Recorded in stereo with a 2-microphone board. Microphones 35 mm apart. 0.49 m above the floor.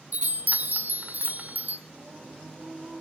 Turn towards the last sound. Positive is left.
turn(degrees=-70)  # may be behind; listen again after turning